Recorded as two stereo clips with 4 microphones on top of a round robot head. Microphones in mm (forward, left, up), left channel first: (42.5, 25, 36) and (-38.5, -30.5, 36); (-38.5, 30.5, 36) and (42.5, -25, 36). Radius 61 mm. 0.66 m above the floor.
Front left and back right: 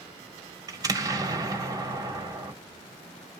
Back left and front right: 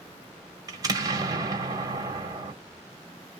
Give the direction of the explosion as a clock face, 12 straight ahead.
3 o'clock.